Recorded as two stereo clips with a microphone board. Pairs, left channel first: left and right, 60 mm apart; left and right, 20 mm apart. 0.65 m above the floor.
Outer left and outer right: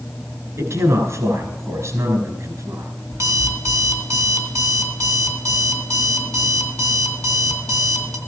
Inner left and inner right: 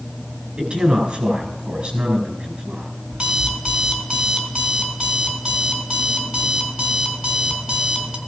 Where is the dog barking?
I don't hear a dog barking.